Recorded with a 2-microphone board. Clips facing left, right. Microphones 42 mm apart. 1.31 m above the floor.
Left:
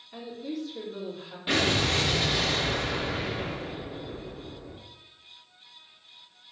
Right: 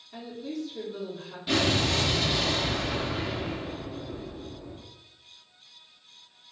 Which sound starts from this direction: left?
An explosion, at 1.5 s.